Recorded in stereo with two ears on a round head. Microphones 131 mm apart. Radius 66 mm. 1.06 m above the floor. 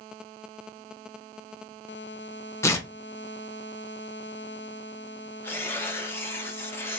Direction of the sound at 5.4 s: 15° left (ahead or behind).